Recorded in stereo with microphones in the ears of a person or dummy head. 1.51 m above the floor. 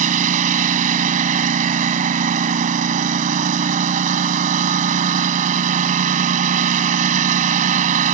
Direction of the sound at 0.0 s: 55° right (ahead or behind).